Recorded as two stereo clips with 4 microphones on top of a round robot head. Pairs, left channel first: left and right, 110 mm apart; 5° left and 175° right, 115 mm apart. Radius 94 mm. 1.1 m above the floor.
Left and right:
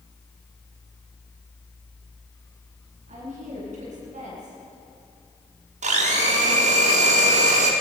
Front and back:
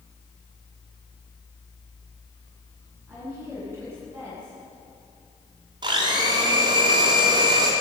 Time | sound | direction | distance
3.1 | a woman speaking | 105° right | 9.5 m
5.8 | a blender | 115° right | 2.5 m